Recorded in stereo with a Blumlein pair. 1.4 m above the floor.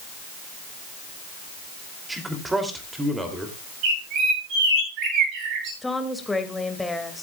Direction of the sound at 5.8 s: 5° left.